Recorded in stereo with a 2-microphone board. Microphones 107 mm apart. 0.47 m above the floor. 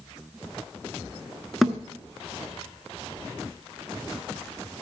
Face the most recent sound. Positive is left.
turn(degrees=0)  # may be behind; listen again after turning